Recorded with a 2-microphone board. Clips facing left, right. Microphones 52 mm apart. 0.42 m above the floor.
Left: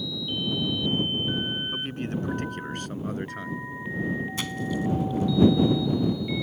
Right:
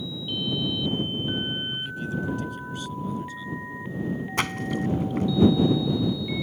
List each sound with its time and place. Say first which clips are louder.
1.7 s a man speaking: even; 50° left (ahead or behind); by 3.6 s 60° left (ahead or behind)
4.4 s a splash: right 2 dB; 55° right (ahead or behind)